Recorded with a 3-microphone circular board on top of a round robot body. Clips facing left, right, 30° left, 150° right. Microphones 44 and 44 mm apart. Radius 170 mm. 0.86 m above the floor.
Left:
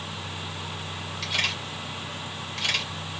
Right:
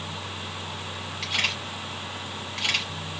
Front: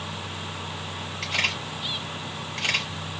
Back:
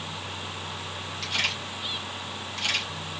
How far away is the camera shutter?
About 4 m.